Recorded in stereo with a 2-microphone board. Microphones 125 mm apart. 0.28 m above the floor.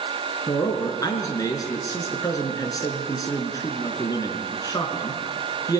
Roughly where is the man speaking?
Left.